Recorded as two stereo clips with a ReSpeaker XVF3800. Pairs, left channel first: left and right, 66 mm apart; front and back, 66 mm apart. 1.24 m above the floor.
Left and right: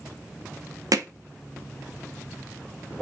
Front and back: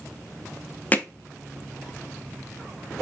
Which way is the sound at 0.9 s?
65° right.